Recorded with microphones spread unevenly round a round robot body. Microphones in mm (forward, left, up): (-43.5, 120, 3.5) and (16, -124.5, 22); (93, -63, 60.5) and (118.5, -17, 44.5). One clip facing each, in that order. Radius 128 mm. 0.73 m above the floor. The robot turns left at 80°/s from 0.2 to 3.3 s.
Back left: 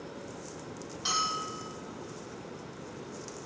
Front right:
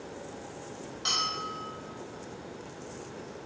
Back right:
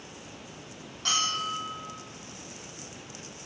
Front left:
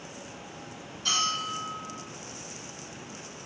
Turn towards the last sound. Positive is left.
turn(degrees=15)